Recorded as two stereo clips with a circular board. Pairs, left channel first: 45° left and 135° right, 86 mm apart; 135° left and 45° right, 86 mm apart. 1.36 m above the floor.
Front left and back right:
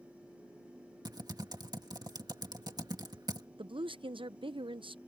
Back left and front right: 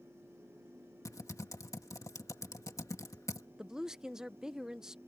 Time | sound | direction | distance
1.1 | typing on a keyboard | 175° right | ?
3.6 | a woman speaking | 130° right | ?